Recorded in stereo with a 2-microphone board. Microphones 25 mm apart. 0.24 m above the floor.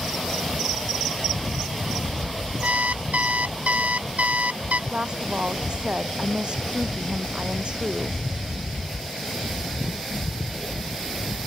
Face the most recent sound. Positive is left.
turn(degrees=-40)  # may be behind; listen again after turning